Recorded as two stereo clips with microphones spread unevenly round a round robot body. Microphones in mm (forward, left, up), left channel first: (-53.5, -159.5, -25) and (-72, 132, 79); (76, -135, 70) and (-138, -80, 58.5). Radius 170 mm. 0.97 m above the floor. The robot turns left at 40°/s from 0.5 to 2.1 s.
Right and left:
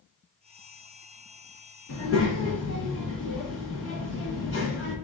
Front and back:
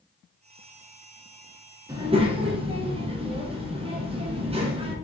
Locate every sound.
1.9 s a child speaking: 120° right, 1.3 m; by 5.0 s 130° right, 1.3 m